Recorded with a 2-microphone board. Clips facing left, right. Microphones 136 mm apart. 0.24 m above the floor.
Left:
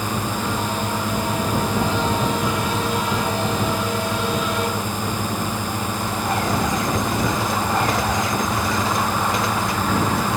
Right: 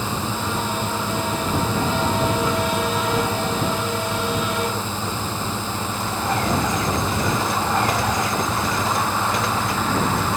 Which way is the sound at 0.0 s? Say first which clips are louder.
Left 1 dB; 15° left (ahead or behind).